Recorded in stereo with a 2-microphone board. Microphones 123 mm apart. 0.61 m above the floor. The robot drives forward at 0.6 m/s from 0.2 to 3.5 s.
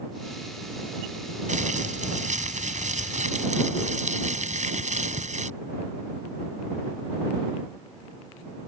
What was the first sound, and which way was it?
Crumpling, 80° right.